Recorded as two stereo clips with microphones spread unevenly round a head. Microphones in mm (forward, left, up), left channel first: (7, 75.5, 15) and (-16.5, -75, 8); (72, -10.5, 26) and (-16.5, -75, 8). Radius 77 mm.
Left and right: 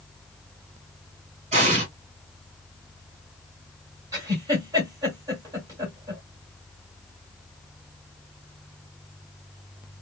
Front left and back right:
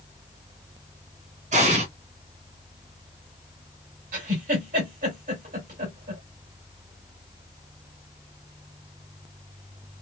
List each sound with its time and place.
1.5 s an explosion: 140° right, 1.8 m
4.1 s a giggle: 170° right, 2.5 m